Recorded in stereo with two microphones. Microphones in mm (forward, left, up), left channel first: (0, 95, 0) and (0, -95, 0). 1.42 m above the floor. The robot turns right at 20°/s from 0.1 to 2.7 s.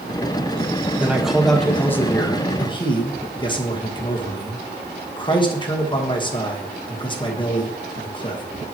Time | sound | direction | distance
1.0 | a man speaking | 10° right | 1.4 m